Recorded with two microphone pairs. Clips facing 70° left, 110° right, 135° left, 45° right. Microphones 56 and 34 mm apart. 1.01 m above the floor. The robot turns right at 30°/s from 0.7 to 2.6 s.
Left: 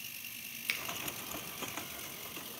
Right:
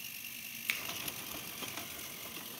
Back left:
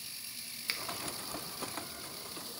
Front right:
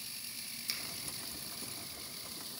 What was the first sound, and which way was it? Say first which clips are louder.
A finger snap: even, back left 5 dB; 165° left.